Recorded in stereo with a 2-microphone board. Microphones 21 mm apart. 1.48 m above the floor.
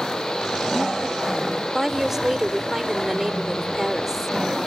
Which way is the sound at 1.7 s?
10° right (ahead or behind).